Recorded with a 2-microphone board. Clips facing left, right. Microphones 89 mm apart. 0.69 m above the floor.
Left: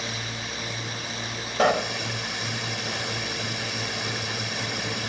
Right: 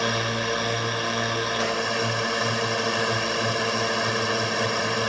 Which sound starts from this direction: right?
A drone, at 0.0 s.